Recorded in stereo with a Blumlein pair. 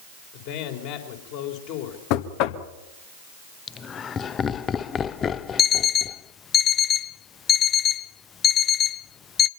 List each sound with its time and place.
0.3 s a man speaking: 45° left, 4 m
2.1 s knocking: 45° left, 1.3 m
3.7 s laughter: 25° left, 0.8 m
5.6 s an alarm clock: 25° left, 0.5 m